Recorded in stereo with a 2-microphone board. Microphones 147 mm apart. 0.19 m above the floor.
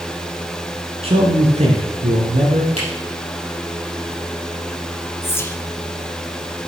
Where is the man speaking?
45° right (ahead or behind), 2.5 m; by 2.7 s 60° right (ahead or behind), 3.5 m.